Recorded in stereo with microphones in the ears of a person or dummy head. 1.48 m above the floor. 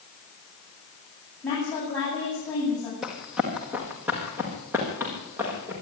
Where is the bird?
I don't hear a bird.